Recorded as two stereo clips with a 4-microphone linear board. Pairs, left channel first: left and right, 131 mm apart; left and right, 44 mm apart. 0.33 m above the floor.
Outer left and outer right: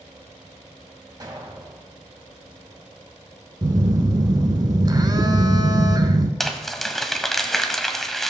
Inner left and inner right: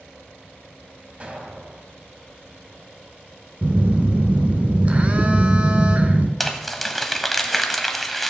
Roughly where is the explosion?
Right.